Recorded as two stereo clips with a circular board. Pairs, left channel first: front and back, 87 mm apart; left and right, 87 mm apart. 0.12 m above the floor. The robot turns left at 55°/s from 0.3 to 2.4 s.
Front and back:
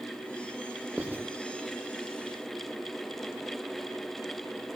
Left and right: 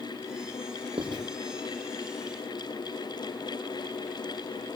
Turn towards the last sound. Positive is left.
turn(degrees=180)